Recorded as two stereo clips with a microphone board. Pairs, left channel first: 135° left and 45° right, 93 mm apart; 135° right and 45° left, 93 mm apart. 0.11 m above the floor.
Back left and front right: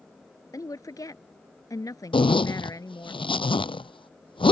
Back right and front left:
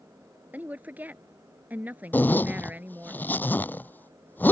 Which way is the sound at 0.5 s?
110° left.